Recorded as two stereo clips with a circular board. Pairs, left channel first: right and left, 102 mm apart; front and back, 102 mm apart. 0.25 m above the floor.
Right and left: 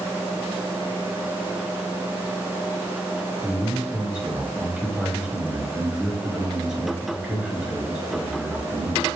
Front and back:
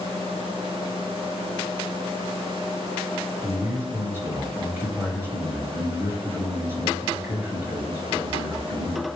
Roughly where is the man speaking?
Behind.